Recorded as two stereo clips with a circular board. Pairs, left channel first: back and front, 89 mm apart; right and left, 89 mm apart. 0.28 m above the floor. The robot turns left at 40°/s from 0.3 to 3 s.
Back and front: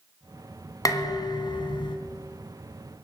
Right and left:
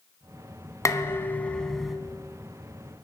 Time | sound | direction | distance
0.8 | dishes clattering | 140° right | 1.7 m